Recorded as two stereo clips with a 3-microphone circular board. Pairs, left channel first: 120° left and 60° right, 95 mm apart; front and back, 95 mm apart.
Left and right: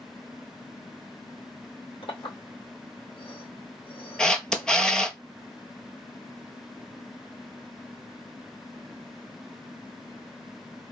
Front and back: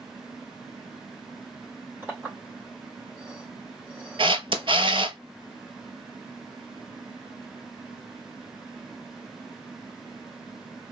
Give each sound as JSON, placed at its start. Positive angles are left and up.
{"t": 2.0, "sound": "a clink", "azimuth_deg": 110, "distance_m": 3.5}
{"t": 4.2, "sound": "a camera shutter", "azimuth_deg": -160, "distance_m": 0.8}